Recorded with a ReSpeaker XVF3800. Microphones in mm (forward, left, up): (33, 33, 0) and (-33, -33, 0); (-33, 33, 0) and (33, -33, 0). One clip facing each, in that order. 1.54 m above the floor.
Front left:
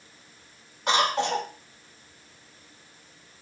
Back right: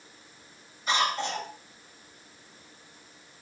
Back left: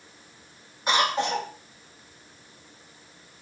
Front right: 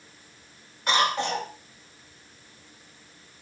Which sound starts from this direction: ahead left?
A cough, at 0.9 s.